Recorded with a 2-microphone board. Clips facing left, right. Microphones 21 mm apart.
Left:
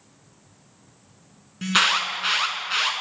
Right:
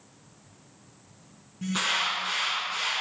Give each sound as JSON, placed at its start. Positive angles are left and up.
{"t": 1.6, "sound": "an alarm", "side_deg": 60, "distance_m": 4.5}